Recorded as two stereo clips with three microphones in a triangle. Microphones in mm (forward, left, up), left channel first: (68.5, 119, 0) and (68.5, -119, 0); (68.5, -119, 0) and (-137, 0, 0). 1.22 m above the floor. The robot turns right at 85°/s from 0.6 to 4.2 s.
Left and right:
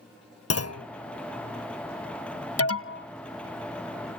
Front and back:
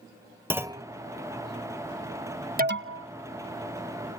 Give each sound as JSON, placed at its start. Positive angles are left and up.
{"t": 0.5, "sound": "a clunk", "azimuth_deg": 70}
{"t": 2.6, "sound": "an alarm", "azimuth_deg": 100}